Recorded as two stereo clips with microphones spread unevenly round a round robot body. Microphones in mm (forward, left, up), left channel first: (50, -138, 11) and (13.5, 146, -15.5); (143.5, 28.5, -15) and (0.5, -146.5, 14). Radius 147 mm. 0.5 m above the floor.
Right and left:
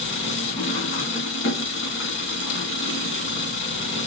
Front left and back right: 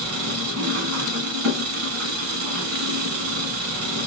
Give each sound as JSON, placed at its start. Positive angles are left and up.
{"t": 0.0, "sound": "an engine running", "azimuth_deg": -135, "distance_m": 2.0}